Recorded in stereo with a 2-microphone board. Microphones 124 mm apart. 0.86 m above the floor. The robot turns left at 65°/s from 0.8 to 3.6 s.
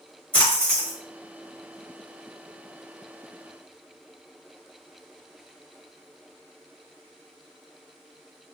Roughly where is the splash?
Centre.